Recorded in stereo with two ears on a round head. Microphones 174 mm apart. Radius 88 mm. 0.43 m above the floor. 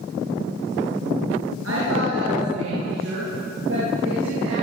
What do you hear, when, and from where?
1.6 s a woman speaking: 80° right, 7 m; by 4.5 s 70° right (ahead or behind), 10 m